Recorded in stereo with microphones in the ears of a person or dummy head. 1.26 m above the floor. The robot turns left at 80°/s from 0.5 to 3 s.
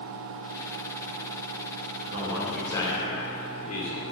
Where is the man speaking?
145° right, 1.4 m; by 4.0 s 135° left, 1.4 m.